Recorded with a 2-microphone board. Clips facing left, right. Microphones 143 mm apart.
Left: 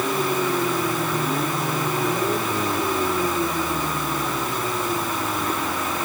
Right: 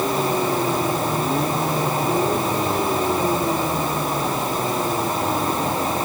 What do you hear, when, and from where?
Only background noise.